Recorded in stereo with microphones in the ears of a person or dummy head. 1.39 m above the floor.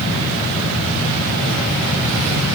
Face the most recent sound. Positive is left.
No sound to turn to.